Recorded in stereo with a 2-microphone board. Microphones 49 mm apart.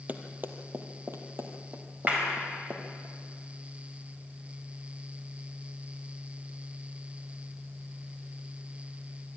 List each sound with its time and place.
0.1 s running footsteps: 35° right (ahead or behind), 1.6 m; by 3.1 s 55° right (ahead or behind), 3 m
2.1 s a clap: 30° right (ahead or behind), 4.5 m